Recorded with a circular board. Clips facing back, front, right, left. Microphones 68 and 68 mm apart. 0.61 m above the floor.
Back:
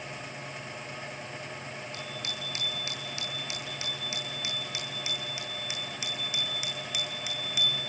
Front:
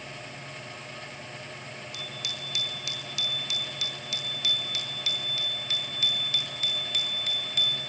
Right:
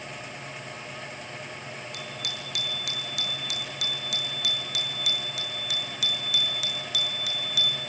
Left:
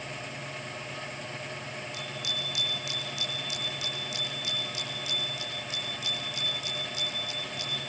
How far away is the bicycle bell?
About 8 m.